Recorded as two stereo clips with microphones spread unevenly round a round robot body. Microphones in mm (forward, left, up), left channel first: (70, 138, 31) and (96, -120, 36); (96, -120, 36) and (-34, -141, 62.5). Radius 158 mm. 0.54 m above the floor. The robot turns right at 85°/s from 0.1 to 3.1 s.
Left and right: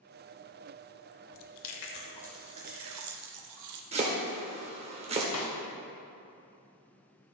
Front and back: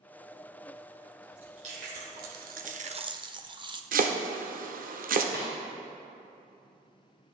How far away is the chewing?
About 0.7 m.